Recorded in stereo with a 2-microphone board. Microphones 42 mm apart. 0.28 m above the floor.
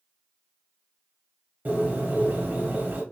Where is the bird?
45° right (ahead or behind), 1.7 m.